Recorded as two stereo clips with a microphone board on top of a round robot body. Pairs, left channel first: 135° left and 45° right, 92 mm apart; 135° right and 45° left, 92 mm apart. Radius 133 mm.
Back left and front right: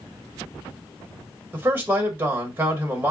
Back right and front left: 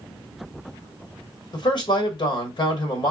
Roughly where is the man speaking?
Right.